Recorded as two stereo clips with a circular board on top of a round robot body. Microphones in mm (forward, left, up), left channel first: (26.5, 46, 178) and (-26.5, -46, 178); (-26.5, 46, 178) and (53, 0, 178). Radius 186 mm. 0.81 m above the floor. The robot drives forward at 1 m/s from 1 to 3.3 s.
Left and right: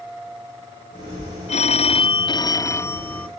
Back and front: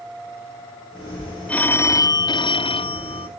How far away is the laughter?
No laughter in this recording.